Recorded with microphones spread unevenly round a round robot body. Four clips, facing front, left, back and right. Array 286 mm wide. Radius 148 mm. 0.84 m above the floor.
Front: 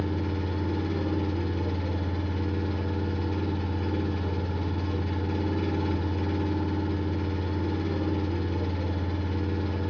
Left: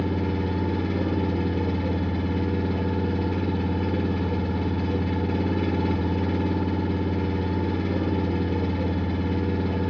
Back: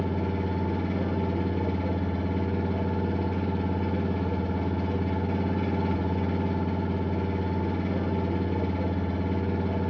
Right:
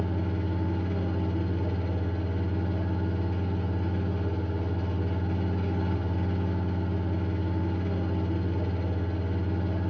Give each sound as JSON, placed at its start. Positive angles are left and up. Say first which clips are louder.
{"t": 0.0, "sound": "an engine running", "louder": "left 6 dB, back 1 dB", "azimuth_deg": 110, "distance_m": 1.7}